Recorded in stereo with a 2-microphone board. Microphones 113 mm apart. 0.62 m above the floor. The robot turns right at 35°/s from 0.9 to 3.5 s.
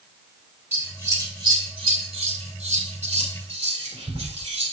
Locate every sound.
0.7 s scissors: 20° right (ahead or behind), 2.5 m; by 4.7 s 60° right (ahead or behind), 2.5 m